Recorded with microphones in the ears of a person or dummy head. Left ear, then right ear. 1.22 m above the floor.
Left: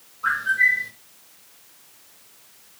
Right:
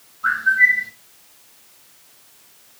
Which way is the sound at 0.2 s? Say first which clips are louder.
Right 4 dB; centre (ahead or behind).